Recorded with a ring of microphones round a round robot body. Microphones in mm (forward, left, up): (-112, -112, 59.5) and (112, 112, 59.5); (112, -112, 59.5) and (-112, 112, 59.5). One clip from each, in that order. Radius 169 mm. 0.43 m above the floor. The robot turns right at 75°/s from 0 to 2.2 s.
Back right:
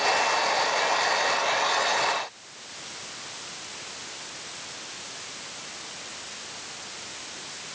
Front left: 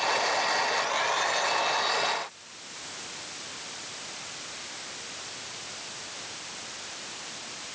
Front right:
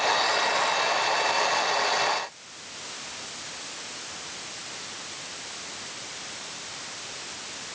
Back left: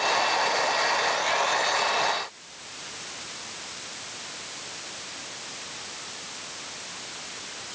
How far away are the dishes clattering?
No dishes clattering in this recording.